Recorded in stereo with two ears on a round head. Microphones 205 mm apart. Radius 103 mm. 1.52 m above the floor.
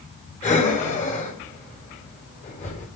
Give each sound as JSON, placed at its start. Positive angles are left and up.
{"t": 0.4, "sound": "breathing", "side_deg": 30, "distance_m": 4.5}